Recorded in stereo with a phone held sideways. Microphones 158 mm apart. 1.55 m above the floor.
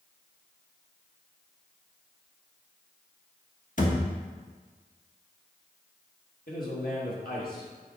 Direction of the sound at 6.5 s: 65° left (ahead or behind).